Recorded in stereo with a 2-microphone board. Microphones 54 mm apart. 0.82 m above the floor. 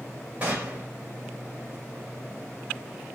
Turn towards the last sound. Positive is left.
turn(degrees=-25)  # may be behind; listen again after turning